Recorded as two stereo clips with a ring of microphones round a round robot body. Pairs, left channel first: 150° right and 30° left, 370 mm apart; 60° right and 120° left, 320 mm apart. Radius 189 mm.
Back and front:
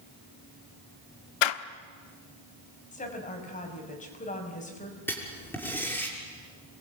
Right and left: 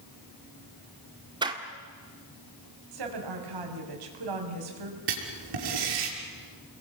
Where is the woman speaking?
140° left, 6 m.